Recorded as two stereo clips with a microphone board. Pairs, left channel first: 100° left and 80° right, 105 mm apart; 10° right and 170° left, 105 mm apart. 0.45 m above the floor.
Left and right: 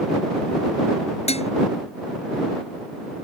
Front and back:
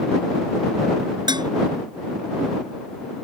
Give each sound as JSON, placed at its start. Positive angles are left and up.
{"t": 1.3, "sound": "dishes clattering", "azimuth_deg": 120}